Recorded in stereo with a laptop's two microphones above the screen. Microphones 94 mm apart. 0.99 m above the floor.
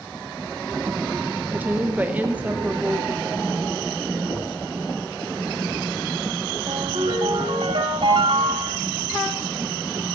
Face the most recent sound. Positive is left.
turn(degrees=-85)